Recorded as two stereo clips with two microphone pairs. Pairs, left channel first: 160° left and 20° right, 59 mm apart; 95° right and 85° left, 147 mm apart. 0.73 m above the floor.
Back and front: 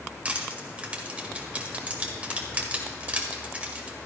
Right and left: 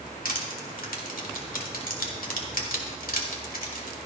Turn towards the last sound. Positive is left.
turn(degrees=-85)